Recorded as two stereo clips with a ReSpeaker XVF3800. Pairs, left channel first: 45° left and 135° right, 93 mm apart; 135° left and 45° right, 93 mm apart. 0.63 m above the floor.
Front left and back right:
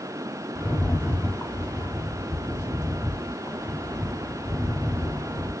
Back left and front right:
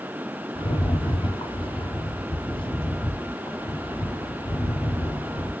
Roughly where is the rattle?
Left.